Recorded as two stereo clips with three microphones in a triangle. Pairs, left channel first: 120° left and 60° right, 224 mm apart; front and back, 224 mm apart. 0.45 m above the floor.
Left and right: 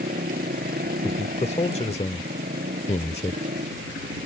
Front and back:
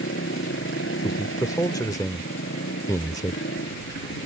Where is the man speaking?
70° left.